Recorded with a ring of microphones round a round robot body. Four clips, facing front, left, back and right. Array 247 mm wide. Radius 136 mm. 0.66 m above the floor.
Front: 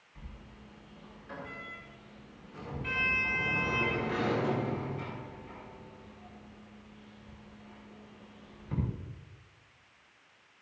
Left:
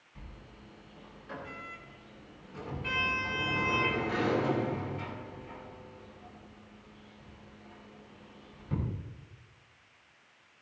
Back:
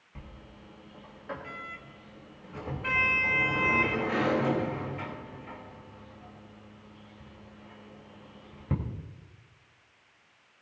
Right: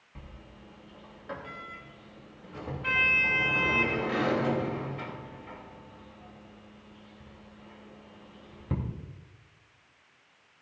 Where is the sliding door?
145° right, 3 m.